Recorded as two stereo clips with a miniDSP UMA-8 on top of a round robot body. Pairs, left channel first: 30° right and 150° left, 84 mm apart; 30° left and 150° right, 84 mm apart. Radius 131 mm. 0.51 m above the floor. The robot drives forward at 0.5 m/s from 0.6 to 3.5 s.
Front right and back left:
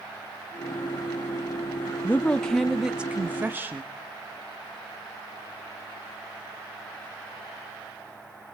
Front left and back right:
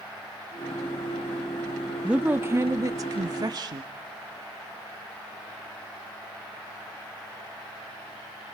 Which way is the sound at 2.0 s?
80° right.